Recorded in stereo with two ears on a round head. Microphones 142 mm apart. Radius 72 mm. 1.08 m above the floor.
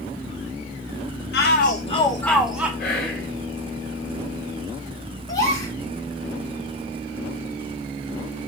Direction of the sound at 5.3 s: 25° left (ahead or behind).